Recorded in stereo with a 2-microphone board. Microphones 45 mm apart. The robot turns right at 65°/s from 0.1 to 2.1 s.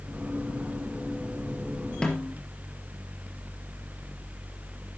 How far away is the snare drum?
About 4 m.